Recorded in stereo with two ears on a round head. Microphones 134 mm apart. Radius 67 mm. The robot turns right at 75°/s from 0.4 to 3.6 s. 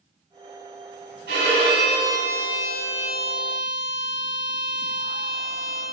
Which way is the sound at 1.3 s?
100° right.